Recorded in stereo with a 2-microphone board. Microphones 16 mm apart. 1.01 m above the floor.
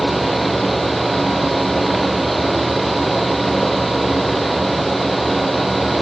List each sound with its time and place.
Only background noise.